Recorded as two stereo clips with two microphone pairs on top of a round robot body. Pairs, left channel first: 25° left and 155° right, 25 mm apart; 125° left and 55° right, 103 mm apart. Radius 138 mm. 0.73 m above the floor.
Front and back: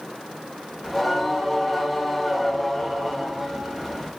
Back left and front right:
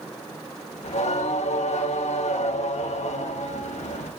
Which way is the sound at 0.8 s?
115° left.